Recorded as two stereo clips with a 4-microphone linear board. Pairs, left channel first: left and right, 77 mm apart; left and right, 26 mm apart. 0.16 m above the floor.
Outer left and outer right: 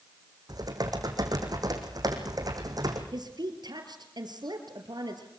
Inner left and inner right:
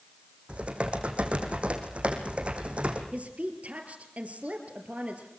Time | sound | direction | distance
0.5 | typing on a keyboard | 55° right (ahead or behind) | 3.5 m
3.1 | a woman speaking | 65° right (ahead or behind) | 4 m